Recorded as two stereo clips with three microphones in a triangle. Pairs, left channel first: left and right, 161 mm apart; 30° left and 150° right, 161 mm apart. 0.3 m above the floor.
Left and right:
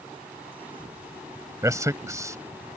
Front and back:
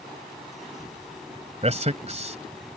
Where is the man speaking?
150° right.